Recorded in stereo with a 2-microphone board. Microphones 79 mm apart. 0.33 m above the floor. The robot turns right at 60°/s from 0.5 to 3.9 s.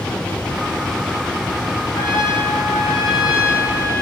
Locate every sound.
1.9 s a trumpet: 110° left, 3 m; by 4.0 s 135° right, 3 m